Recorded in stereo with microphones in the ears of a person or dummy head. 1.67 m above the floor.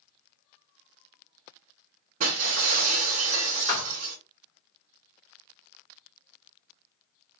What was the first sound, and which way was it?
Breaking glass, 45° right (ahead or behind).